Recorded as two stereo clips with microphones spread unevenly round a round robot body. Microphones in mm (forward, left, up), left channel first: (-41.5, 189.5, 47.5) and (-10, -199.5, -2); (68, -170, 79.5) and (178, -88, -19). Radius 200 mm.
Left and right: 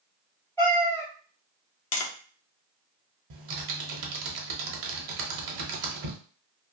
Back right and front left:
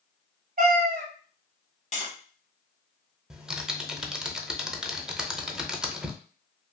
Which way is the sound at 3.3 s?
45° right.